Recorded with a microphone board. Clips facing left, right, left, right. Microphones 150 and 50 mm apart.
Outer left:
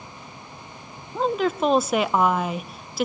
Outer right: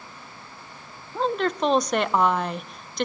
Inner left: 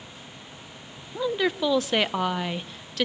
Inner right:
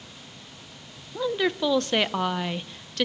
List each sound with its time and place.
1.1 s a woman speaking: 5° left (ahead or behind), 0.8 m